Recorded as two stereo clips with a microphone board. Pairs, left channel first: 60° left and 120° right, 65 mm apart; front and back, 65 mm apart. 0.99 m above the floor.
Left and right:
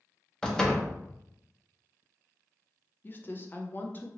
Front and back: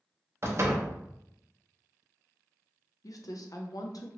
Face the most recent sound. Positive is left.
turn(degrees=5)